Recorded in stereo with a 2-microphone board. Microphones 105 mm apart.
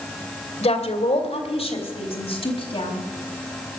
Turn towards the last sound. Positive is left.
turn(degrees=60)  # may be behind; listen again after turning